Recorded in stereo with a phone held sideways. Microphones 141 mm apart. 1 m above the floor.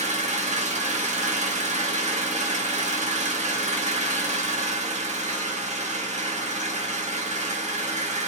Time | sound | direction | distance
0.0 | an engine running | 50° right (ahead or behind) | 0.8 m